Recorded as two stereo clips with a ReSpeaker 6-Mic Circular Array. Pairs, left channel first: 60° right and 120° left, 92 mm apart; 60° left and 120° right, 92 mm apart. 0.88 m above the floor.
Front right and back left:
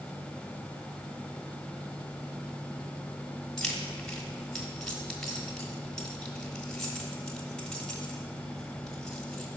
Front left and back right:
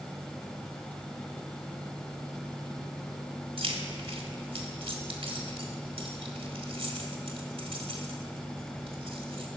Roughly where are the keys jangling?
Behind right.